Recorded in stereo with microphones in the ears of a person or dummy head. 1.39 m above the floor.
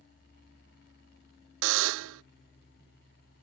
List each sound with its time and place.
1.6 s a buzzer: 70° right (ahead or behind)